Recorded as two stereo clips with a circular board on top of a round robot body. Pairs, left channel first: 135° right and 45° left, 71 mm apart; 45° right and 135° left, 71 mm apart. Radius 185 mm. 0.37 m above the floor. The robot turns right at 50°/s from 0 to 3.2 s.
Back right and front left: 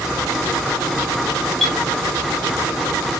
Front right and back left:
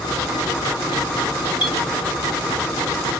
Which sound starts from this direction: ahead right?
A clink, at 1.6 s.